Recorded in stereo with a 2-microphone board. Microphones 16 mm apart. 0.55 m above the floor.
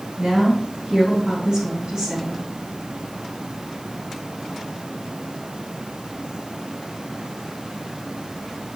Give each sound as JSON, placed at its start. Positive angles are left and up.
{"t": 0.2, "sound": "a woman speaking", "side_deg": -30, "distance_m": 4.0}